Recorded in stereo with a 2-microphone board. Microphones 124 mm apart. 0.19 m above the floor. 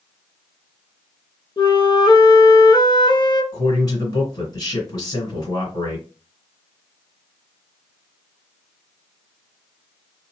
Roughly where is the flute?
Left.